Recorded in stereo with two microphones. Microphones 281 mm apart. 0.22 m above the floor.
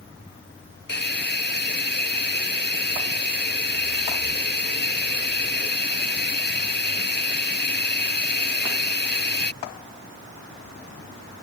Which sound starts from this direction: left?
A hiss, at 0.9 s.